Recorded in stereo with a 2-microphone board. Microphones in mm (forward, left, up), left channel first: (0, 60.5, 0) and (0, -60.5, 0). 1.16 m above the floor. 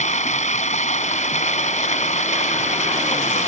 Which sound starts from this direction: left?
Running water, at 0.0 s.